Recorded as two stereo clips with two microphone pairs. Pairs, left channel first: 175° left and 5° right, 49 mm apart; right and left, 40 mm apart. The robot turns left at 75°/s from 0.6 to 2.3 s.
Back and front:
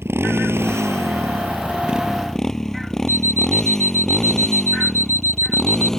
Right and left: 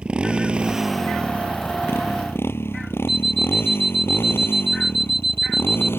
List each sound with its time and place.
0.0 s a motorcycle: 25° left; by 6.0 s 100° right
3.1 s an alarm clock: 5° left